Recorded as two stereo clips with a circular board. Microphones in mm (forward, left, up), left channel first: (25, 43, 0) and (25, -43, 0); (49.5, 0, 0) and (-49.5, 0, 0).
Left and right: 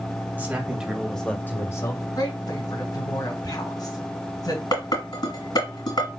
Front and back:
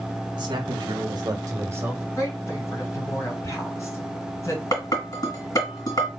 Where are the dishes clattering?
50° left, 1.8 m.